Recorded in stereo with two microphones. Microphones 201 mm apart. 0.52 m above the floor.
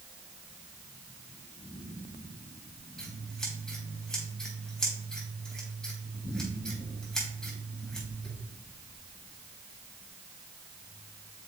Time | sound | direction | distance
3.0 | scissors | 5° left (ahead or behind) | 4 m